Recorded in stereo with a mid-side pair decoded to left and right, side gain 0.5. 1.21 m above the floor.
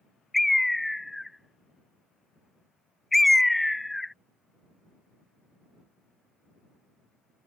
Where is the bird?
5° left.